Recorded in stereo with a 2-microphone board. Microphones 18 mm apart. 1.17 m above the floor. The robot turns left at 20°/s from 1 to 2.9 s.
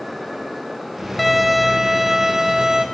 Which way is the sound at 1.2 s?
Straight ahead.